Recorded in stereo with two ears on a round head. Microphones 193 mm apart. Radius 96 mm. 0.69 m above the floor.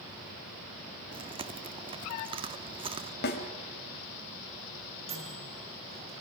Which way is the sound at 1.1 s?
25° right (ahead or behind).